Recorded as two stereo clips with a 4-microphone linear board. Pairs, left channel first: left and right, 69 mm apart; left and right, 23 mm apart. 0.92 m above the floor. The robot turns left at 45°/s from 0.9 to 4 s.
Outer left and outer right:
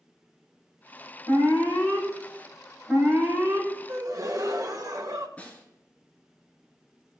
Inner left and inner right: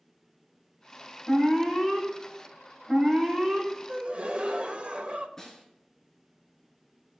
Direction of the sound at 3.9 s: 60° right (ahead or behind).